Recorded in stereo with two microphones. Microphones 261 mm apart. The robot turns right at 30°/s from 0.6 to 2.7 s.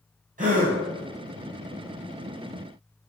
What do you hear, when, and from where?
0.4 s a gasp: 30° right (ahead or behind), 0.9 m; by 0.8 s 25° right (ahead or behind), 0.9 m